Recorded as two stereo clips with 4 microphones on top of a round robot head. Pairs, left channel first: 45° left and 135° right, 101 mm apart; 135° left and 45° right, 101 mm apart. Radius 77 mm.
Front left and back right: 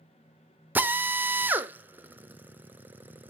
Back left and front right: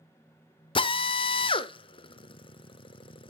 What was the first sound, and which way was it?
A drill, 155° left.